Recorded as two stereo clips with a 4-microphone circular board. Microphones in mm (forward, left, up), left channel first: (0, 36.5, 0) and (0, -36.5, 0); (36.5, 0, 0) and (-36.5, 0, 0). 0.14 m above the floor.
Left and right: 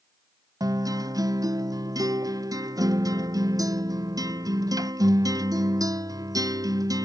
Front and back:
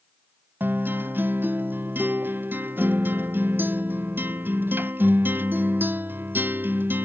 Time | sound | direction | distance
0.6 | a guitar | 120° right | ?